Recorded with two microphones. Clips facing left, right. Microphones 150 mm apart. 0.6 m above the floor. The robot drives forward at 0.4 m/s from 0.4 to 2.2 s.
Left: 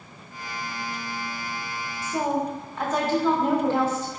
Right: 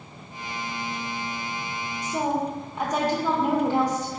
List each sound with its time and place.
2.0 s a woman speaking: 15° right (ahead or behind), 0.7 m